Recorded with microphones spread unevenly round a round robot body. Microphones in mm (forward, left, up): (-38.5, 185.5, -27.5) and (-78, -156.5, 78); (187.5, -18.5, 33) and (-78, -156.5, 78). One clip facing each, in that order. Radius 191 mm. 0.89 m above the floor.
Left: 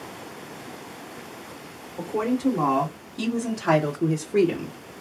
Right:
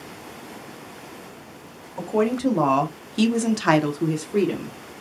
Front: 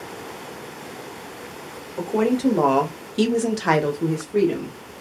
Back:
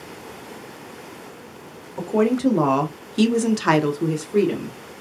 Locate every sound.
2.0 s a woman speaking: 65° right, 1.3 m; by 4.8 s 125° left, 0.7 m